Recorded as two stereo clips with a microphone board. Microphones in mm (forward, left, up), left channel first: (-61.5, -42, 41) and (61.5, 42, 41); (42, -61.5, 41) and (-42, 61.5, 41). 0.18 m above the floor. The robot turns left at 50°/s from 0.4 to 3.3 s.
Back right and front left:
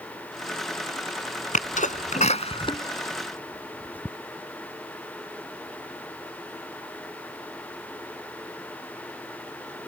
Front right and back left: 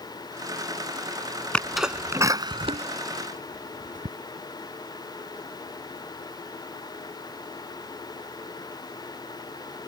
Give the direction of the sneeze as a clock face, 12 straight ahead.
5 o'clock.